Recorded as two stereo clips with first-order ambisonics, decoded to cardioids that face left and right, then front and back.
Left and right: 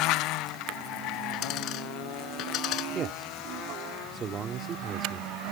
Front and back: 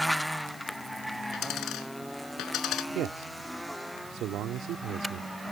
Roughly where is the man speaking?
Behind right.